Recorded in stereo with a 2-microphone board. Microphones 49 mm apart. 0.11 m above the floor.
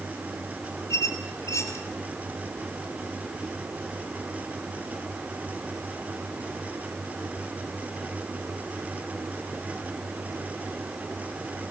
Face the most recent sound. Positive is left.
turn(degrees=90)